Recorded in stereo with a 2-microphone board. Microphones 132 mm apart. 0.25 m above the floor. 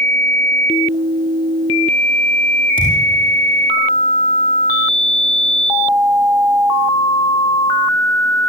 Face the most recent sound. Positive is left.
turn(degrees=85)